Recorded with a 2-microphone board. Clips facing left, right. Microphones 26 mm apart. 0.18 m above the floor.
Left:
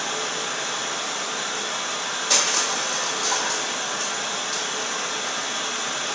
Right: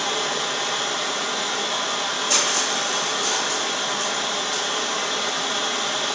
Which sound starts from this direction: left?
Crushing, at 2.3 s.